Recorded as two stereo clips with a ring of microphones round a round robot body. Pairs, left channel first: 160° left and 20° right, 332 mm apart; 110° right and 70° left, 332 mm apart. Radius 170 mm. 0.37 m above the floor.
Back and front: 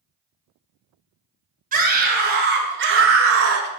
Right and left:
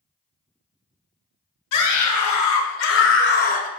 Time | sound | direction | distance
1.7 | a scream | 85° right | 2.5 m